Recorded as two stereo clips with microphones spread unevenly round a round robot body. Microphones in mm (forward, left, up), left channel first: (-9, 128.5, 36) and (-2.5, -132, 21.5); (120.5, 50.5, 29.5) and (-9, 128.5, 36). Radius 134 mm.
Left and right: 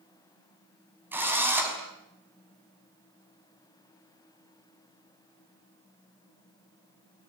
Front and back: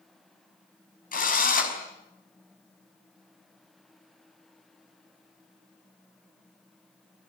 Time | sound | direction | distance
1.1 | a drill | 5° right | 6 m